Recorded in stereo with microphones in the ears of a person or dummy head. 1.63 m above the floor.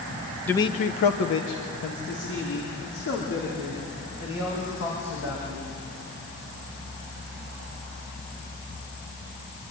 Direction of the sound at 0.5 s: 5° left (ahead or behind).